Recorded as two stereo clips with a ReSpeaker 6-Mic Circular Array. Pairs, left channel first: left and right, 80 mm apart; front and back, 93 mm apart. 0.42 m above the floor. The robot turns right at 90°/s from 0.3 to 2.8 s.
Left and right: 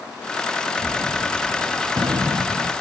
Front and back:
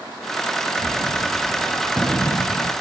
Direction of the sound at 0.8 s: 170° left.